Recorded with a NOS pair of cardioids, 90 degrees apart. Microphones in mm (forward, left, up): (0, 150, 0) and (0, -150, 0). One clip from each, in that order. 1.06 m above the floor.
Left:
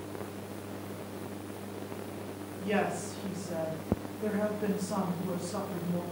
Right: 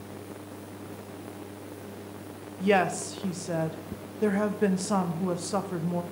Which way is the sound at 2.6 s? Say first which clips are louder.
Right 7 dB; 65° right.